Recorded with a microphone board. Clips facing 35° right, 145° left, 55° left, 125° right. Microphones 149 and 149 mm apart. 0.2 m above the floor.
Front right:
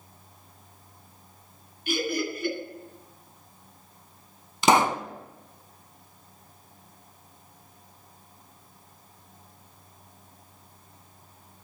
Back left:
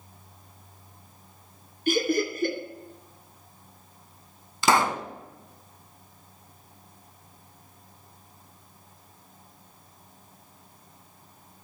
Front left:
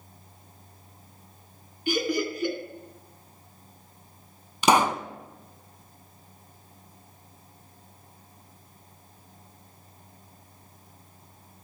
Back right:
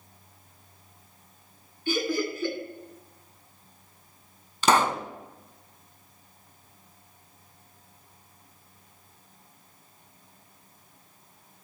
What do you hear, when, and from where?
1.9 s laughter: 125° left, 2 m
4.6 s a pop: straight ahead, 0.5 m